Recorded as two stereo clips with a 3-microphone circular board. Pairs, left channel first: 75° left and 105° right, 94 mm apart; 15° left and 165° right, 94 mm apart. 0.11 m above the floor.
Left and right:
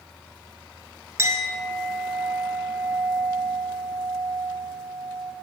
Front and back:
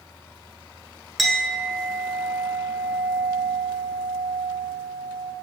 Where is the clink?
75° right, 1.0 m.